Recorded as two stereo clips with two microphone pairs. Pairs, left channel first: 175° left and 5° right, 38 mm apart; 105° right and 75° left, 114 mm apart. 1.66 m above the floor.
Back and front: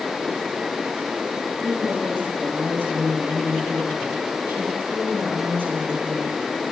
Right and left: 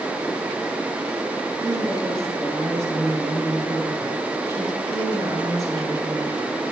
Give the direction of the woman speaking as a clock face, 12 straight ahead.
12 o'clock.